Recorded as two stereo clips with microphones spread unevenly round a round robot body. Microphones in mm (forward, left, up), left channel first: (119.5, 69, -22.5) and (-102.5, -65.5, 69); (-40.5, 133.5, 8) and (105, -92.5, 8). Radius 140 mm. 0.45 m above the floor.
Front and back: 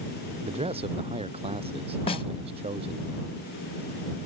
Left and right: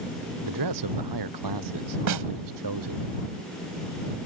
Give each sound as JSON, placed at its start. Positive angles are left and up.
{"t": 0.4, "sound": "a man speaking", "azimuth_deg": -80}
{"t": 2.1, "sound": "a snare drum", "azimuth_deg": -35}